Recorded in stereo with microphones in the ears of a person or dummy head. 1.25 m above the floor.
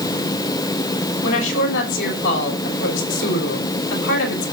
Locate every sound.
1.2 s a woman speaking: 65° left (ahead or behind), 5.5 m